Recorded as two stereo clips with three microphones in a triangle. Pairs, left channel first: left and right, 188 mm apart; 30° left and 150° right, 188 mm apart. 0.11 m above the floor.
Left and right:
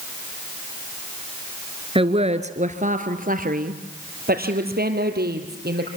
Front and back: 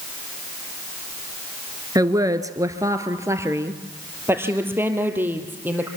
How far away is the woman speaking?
About 1.2 m.